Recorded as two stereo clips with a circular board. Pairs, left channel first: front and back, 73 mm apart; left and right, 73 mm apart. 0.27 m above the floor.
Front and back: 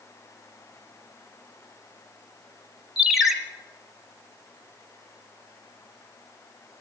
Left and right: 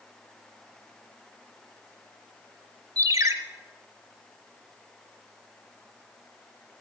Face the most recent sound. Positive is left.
turn(degrees=-95)